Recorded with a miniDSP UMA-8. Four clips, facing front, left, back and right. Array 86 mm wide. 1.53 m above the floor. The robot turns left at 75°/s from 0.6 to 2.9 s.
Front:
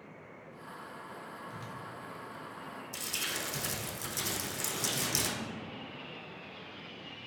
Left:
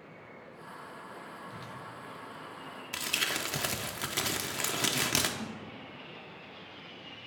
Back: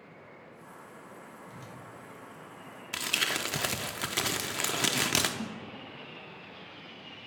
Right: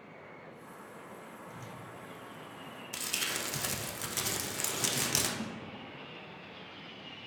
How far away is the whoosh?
About 0.7 m.